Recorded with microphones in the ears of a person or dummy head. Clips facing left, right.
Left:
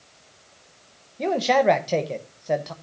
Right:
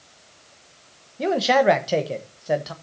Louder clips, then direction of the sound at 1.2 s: Right 1 dB; 5° right (ahead or behind).